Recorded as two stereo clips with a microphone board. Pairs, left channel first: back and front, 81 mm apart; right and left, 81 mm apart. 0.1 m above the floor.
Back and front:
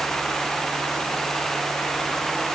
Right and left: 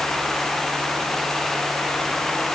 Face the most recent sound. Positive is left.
No sound to turn to.